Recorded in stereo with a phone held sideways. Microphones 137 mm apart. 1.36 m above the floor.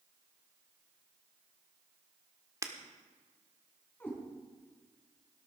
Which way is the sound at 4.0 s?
15° left (ahead or behind).